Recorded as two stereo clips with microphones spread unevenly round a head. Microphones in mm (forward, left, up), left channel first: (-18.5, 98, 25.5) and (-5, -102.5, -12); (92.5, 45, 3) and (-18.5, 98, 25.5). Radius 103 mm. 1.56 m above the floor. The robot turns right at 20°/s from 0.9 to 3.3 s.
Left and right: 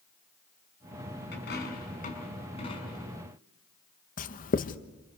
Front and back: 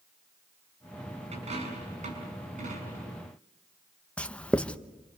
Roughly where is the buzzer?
I don't hear a buzzer.